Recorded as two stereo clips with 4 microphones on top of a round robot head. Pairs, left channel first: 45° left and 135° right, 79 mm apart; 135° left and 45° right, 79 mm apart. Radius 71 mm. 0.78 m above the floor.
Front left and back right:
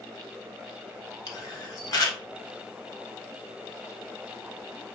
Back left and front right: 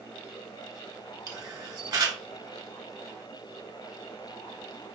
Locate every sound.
1.3 s a camera shutter: straight ahead, 1.3 m